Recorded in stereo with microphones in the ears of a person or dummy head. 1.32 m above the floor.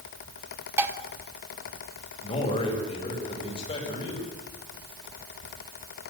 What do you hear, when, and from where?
0.8 s dishes clattering: 15° right (ahead or behind), 1.6 m
2.2 s a man speaking: 25° left (ahead or behind), 5.5 m